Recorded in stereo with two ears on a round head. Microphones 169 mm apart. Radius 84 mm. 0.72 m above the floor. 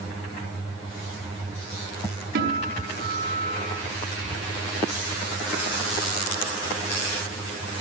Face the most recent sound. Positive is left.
turn(degrees=-60)  # may be behind; listen again after turning